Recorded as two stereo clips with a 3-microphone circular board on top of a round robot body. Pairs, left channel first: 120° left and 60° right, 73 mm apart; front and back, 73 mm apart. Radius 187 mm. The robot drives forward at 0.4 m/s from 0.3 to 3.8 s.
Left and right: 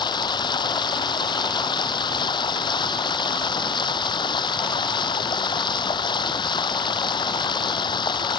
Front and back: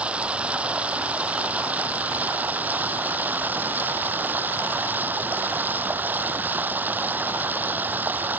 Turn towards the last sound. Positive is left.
turn(degrees=115)